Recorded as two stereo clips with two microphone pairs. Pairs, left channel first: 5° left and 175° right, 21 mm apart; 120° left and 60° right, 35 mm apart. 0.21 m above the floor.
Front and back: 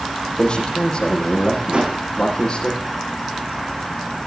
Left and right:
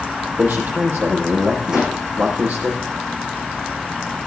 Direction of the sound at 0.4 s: 45° right.